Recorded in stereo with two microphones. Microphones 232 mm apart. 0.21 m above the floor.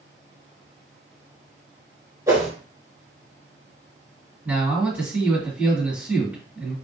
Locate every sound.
2.3 s a whoosh: 15° right (ahead or behind), 1.0 m
4.5 s a man speaking: 5° right (ahead or behind), 1.6 m